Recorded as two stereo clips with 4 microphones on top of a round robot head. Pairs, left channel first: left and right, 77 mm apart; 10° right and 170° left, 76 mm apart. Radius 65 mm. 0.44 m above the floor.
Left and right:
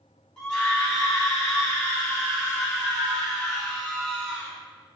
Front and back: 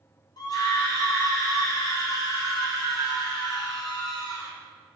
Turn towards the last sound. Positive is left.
turn(degrees=15)